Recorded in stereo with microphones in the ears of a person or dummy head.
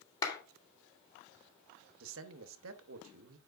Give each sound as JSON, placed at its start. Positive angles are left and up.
{"t": 0.2, "sound": "a clap", "side_deg": 25, "distance_m": 2.5}
{"t": 2.0, "sound": "a man speaking", "side_deg": -80, "distance_m": 1.0}